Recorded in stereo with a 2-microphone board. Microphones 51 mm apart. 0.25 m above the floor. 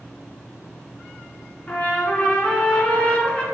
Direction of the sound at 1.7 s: 25° left (ahead or behind).